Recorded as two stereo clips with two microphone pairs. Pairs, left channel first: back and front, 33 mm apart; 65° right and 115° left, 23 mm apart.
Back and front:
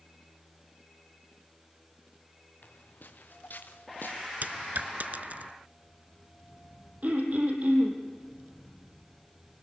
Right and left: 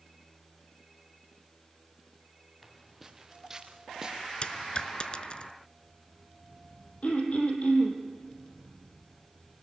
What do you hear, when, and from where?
2.6 s footsteps: 155° right, 1.6 m; by 4.2 s straight behind, 2.5 m
4.4 s a dropped coin: 25° right, 0.8 m
7.0 s throat clearing: 35° right, 3.5 m